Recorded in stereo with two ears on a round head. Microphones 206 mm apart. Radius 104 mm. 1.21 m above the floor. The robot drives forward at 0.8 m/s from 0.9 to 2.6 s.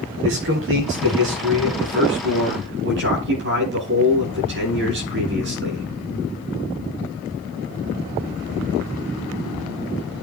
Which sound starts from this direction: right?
A man speaking, at 0.2 s.